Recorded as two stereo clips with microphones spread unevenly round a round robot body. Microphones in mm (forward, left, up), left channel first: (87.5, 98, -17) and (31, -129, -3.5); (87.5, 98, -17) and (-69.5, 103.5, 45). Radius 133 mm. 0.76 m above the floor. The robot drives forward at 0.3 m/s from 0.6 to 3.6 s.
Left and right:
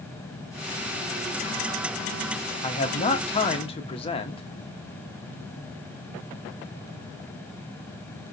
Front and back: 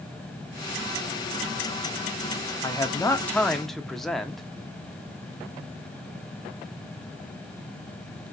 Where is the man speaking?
20° left, 0.8 m; by 4.4 s 40° left, 0.7 m.